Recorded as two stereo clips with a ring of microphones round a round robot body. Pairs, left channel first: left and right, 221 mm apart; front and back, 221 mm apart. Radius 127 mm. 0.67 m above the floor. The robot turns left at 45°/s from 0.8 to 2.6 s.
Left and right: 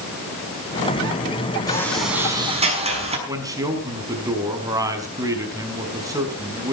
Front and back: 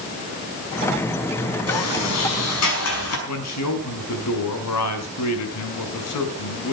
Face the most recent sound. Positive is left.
turn(degrees=-15)